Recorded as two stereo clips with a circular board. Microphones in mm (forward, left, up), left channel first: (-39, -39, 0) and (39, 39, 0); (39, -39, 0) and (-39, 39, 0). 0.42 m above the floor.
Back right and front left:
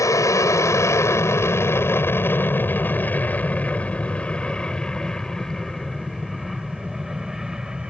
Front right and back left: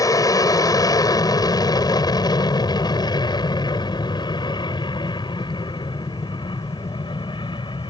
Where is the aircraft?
85° right; by 7.9 s 35° right.